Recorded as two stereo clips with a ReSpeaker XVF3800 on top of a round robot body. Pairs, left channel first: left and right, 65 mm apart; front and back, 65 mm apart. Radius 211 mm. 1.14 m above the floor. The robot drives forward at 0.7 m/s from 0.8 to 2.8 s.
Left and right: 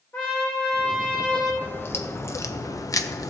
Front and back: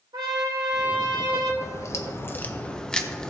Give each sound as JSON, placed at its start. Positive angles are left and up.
{"t": 0.1, "sound": "a trumpet", "azimuth_deg": 160, "distance_m": 0.6}
{"t": 1.6, "sound": "a crack", "azimuth_deg": 35, "distance_m": 1.3}